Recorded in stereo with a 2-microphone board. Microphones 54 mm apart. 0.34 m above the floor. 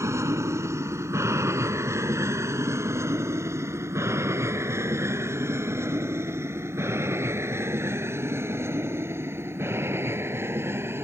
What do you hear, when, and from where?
0.0 s an aircraft: 70° right (ahead or behind); by 11.1 s 50° right (ahead or behind)